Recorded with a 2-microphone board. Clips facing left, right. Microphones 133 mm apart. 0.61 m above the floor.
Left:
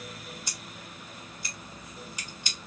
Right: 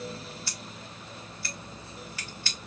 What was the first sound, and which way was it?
Scissors, 15° left (ahead or behind).